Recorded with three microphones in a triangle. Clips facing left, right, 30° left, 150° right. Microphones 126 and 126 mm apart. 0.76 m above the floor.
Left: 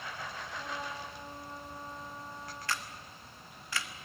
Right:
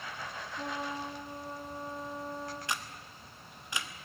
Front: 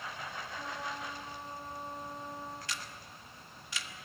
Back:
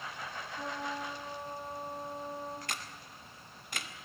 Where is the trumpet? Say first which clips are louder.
Right 5 dB, back 4 dB; 80° right, 6 m.